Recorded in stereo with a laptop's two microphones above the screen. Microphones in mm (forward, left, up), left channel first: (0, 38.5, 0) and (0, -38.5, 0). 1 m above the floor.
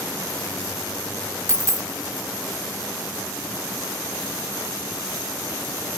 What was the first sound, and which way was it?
A dropped coin, 40° right (ahead or behind).